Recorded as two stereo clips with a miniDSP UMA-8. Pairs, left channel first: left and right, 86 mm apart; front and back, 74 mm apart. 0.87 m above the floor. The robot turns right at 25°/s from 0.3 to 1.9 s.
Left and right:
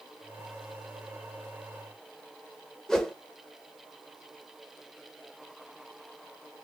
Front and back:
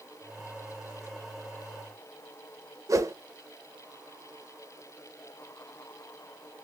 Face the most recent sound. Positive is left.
turn(degrees=170)